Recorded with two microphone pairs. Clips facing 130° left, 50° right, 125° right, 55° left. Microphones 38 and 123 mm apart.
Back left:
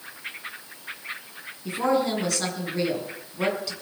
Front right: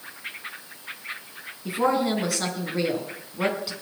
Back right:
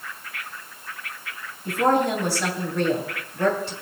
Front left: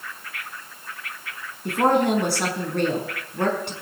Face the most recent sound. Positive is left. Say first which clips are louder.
# front right 1 dB, front left 1 dB
turn(degrees=35)